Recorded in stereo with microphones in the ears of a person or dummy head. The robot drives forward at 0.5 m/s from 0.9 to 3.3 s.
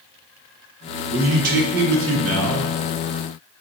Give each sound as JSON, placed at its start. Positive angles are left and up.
{"t": 1.1, "sound": "a man speaking", "side_deg": -45, "distance_m": 0.9}